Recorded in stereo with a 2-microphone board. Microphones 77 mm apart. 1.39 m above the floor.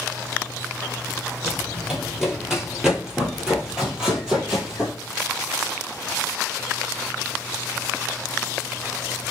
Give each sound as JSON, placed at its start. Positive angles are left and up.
{"t": 1.4, "sound": "running footsteps", "side_deg": 0, "distance_m": 1.5}